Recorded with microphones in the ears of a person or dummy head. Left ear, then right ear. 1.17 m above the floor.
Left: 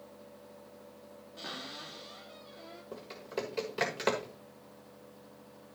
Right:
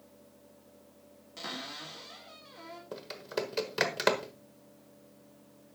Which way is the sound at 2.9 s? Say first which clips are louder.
Right 3 dB; 35° right (ahead or behind).